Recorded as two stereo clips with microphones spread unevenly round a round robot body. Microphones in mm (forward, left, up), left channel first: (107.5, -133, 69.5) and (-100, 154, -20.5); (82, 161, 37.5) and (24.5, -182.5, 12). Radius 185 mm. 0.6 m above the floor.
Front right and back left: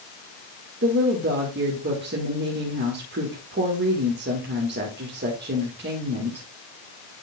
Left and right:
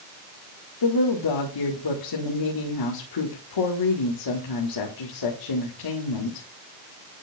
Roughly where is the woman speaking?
Left.